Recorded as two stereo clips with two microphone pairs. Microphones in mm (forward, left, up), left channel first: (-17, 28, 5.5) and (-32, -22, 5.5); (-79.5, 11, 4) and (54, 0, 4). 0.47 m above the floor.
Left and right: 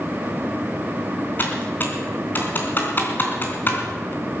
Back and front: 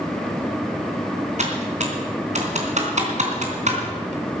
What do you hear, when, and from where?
1.4 s typing on a keyboard: 20° left, 3 m